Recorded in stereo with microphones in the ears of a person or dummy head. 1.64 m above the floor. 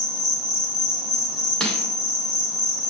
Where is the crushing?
Centre (ahead or behind), 0.7 m.